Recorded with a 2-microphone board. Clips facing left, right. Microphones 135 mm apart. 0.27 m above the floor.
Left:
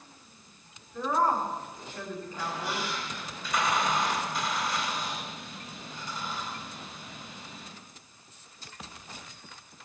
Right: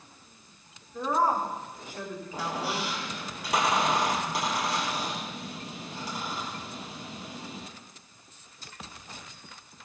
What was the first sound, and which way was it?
A woman speaking, 10° right (ahead or behind).